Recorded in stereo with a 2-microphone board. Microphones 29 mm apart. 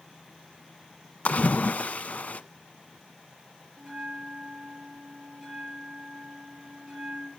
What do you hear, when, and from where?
1.2 s a splash: 60° left (ahead or behind), 1.1 m
3.8 s a bell: 20° right (ahead or behind), 5 m